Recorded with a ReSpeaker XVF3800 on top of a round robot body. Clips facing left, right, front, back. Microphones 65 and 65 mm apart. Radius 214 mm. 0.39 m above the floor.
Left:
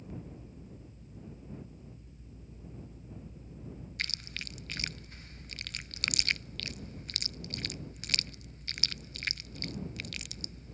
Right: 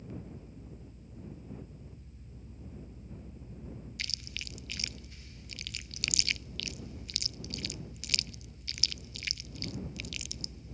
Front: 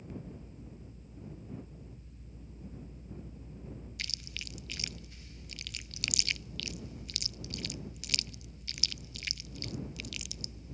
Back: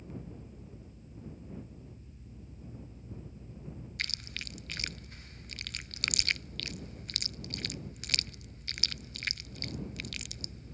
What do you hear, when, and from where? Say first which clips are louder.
4.0 s chewing: left 5 dB, back 7 dB; 135° left